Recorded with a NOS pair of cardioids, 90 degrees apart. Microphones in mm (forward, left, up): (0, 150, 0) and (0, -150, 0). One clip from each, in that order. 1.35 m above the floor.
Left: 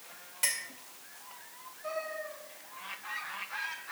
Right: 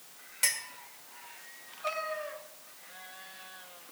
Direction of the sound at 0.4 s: 15° right.